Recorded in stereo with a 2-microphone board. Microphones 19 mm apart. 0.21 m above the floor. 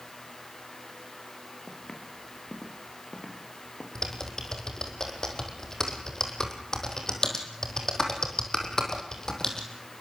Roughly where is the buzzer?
No buzzer in this recording.